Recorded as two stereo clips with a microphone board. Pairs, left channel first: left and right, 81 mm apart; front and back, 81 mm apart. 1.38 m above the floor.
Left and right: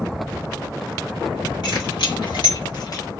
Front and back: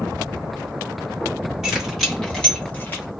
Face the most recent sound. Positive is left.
turn(degrees=55)